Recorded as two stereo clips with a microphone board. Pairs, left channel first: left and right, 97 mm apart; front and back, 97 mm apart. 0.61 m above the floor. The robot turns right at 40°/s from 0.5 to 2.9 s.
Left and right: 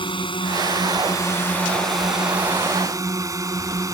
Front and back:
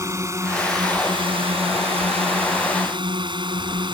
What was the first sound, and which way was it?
A drone, 120° left.